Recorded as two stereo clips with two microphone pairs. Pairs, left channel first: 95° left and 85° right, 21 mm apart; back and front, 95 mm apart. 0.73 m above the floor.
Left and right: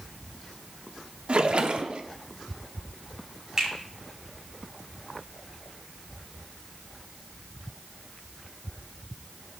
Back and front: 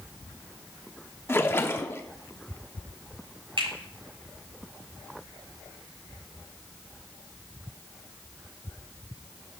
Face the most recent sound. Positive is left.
turn(degrees=-25)